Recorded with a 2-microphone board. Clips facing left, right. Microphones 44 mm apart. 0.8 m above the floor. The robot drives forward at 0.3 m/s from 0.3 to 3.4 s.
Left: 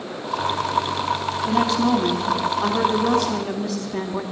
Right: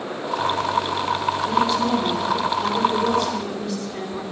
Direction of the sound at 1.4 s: 55° left (ahead or behind).